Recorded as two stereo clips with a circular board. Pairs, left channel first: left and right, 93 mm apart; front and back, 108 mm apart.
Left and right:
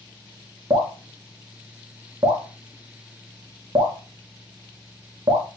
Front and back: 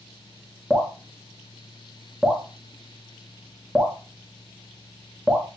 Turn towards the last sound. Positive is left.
turn(degrees=-105)